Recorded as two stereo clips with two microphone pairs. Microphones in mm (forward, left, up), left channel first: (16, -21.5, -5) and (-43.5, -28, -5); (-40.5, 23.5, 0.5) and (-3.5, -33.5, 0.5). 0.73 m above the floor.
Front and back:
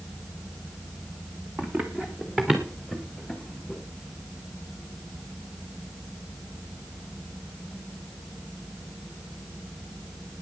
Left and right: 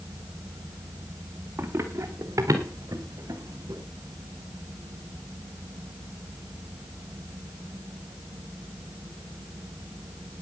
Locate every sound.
1.6 s running footsteps: 110° right, 2.5 m; by 3.8 s 80° right, 5 m